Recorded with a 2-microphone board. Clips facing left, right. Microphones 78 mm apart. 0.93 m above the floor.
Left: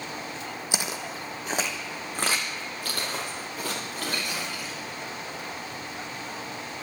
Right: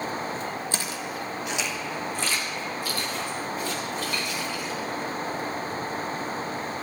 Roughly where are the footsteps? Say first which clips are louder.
Right 1 dB; centre.